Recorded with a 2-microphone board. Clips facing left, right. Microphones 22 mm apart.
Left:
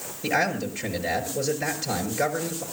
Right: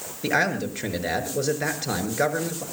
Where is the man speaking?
35° right (ahead or behind), 5.5 m.